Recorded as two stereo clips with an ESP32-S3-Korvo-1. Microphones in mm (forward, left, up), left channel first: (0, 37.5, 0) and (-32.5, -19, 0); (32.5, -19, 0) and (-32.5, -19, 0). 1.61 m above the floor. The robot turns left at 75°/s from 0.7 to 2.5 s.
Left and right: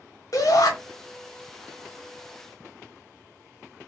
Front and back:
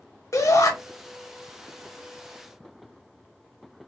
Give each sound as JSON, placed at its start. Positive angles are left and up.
{"t": 0.3, "sound": "a shout", "azimuth_deg": 35, "distance_m": 1.3}